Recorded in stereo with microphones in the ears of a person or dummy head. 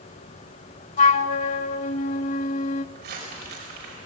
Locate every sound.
1.0 s a flute: 45° left (ahead or behind), 0.5 m
3.0 s crumpling: 55° right (ahead or behind), 5.5 m